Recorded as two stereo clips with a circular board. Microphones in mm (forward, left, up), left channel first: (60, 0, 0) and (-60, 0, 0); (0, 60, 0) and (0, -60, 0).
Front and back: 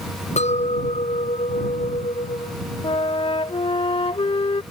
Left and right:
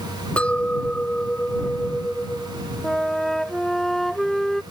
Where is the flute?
5° left.